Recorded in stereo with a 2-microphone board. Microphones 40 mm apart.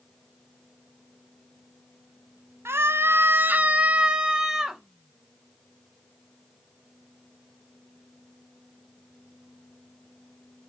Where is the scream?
80° right, 0.8 m; by 4.8 s 10° right (ahead or behind), 1.2 m.